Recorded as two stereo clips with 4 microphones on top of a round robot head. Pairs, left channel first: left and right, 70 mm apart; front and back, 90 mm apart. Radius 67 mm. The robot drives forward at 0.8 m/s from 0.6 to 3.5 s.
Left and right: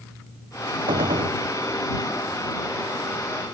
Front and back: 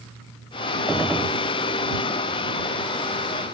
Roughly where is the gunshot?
Right.